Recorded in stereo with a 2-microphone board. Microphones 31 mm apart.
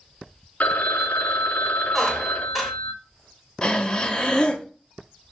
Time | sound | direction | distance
0.6 | a phone ringing | 55° left (ahead or behind) | 0.5 m
1.9 | a squeak | centre (ahead or behind) | 1.0 m
3.6 | breathing | 30° left (ahead or behind) | 0.6 m